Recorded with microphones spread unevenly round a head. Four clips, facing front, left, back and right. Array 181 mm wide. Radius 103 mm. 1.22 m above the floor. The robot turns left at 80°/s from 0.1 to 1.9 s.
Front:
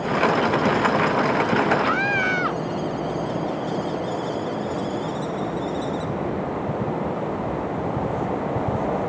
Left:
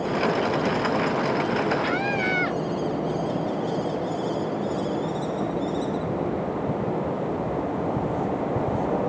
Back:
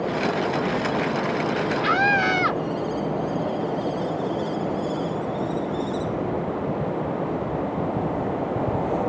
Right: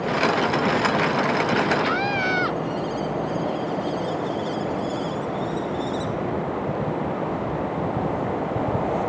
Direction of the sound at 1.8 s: 165° left.